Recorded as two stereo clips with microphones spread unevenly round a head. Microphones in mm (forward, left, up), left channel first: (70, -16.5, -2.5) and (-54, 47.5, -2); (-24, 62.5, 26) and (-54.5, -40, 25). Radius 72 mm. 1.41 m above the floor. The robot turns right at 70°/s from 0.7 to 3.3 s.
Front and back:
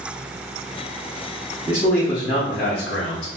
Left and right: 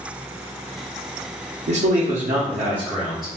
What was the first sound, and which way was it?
A man speaking, 130° right.